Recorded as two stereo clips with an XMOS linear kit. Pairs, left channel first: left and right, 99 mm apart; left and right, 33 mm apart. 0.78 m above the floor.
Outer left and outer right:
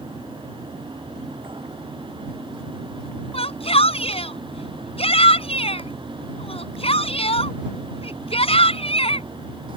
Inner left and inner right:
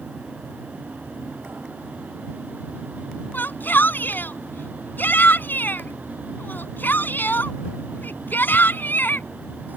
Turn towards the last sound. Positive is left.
turn(degrees=80)